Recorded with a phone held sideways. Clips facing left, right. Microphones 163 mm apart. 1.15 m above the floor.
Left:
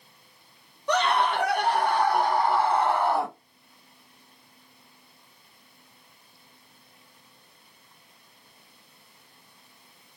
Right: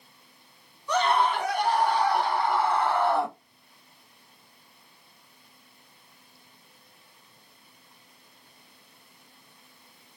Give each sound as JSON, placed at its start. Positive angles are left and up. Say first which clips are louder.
{"t": 0.9, "sound": "a scream", "louder": "even", "side_deg": 70, "distance_m": 1.0}